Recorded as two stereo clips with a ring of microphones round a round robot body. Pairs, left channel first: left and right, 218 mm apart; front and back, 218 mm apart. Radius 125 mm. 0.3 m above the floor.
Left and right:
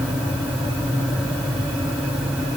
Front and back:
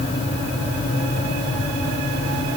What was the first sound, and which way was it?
Only background noise.